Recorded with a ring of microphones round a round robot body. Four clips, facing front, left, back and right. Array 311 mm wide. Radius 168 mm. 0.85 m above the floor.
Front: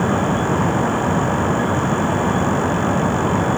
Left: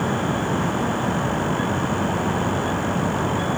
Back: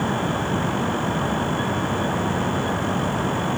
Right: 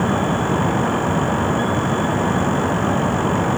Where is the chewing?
No chewing in this recording.